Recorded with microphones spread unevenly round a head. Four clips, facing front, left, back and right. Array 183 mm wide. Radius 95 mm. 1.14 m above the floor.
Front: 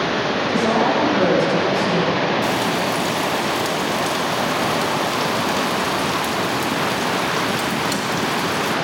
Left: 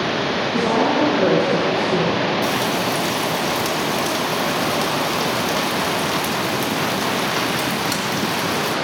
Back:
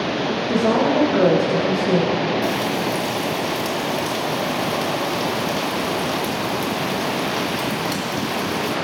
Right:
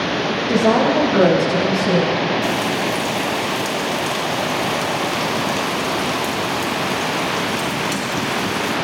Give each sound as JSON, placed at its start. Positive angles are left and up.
{"t": 0.5, "sound": "a woman speaking", "azimuth_deg": -100, "distance_m": 6.5}
{"t": 2.4, "sound": "frying", "azimuth_deg": 60, "distance_m": 2.5}